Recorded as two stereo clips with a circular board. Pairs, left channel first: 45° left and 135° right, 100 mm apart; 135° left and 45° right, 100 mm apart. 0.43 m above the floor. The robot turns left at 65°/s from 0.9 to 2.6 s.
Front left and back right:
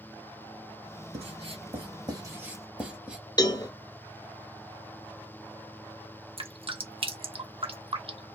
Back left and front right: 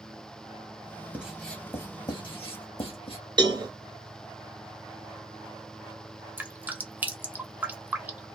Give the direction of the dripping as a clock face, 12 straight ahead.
4 o'clock.